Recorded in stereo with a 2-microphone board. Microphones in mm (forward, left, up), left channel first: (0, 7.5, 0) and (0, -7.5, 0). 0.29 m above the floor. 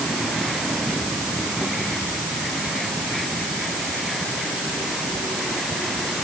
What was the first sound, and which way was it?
Only background noise.